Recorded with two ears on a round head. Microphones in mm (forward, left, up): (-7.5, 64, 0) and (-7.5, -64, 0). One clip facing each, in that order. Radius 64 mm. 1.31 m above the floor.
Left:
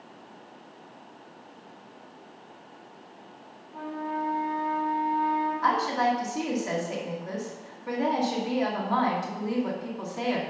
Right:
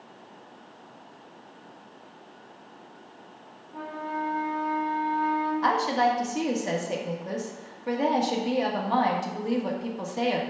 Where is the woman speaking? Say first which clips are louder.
Right 2 dB; 30° right (ahead or behind), 1.6 m.